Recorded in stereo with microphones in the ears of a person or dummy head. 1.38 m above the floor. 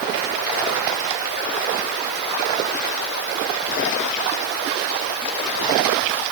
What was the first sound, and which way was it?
Only background noise.